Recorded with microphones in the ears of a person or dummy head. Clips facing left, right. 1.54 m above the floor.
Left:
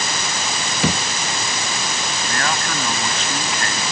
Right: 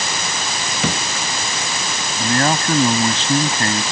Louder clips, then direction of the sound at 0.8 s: Left 2 dB; 5° left (ahead or behind).